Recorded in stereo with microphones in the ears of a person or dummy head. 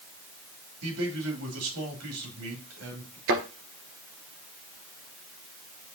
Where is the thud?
60° right (ahead or behind), 1.9 m.